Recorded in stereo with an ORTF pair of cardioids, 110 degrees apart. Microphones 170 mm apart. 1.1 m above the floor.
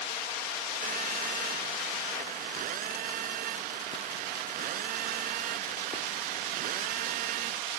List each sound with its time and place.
0.8 s a phone buzzing: 60° right